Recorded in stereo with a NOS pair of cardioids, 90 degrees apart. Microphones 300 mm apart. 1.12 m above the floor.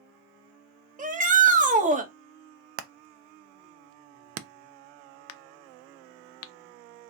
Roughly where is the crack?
Ahead left.